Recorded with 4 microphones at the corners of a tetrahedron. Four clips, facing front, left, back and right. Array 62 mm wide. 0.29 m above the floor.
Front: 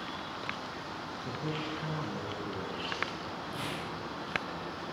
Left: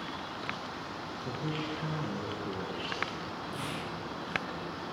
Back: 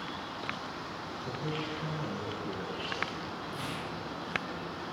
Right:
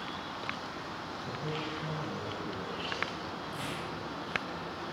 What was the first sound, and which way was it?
A man speaking, 55° left.